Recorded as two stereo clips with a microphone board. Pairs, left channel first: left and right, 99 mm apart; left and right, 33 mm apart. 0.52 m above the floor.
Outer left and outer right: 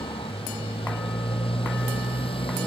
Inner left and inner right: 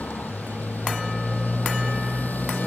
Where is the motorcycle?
70° left (ahead or behind).